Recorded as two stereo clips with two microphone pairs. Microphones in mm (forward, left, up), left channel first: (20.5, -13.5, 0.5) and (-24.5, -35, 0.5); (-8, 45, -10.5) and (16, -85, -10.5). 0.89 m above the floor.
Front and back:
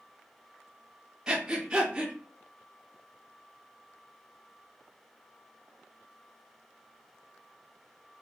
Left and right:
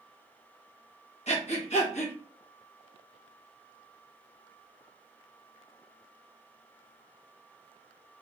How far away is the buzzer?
I don't hear a buzzer.